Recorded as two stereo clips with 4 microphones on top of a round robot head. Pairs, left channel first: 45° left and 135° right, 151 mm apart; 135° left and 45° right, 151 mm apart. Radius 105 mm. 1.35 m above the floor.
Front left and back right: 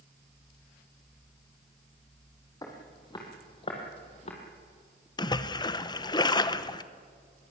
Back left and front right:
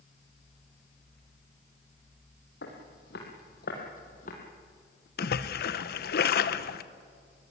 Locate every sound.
2.6 s footsteps: 110° left, 4 m; by 4.4 s 90° left, 3.5 m
5.2 s a splash: 110° left, 0.8 m